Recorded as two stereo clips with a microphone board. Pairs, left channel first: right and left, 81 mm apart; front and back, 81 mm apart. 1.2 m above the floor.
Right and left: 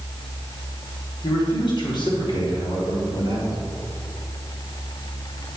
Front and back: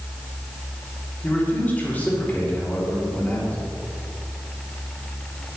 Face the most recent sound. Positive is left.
turn(degrees=-70)